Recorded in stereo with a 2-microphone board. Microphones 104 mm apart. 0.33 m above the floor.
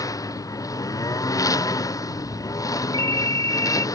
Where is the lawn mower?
35° left (ahead or behind).